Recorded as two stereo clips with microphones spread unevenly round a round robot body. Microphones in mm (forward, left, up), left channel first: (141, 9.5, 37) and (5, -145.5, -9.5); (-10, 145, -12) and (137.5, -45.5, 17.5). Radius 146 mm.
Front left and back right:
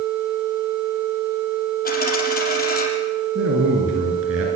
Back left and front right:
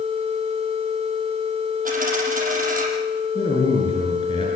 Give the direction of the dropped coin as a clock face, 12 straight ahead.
12 o'clock.